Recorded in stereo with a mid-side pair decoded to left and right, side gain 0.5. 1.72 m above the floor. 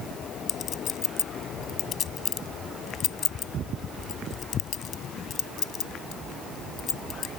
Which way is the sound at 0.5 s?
55° left.